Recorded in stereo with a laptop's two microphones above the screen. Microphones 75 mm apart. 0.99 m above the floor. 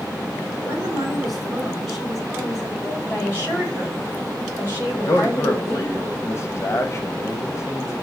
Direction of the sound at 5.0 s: 40° left (ahead or behind).